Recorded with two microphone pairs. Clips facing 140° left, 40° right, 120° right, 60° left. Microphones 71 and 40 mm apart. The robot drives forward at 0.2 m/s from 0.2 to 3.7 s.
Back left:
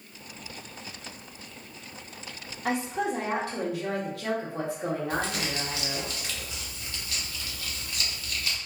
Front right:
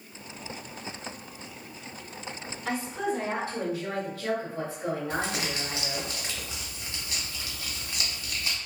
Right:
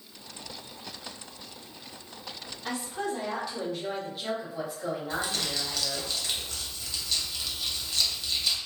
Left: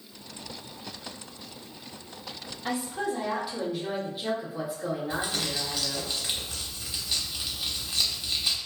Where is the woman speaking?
135° left, 1.0 m; by 6.1 s 140° left, 1.2 m.